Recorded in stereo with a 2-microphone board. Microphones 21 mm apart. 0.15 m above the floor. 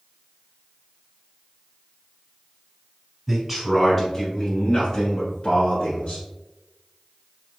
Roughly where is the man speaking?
Centre.